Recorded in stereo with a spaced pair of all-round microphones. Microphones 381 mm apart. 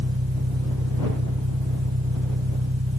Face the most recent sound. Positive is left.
turn(degrees=-40)  # may be behind; listen again after turning